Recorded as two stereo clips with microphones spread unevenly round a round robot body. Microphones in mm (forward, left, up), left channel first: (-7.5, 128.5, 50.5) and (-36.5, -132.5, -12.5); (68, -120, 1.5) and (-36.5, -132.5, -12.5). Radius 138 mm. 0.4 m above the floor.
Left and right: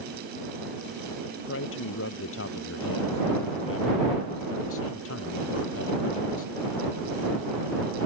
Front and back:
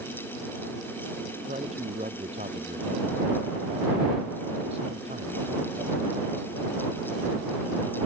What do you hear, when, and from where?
1.5 s a man speaking: 125° left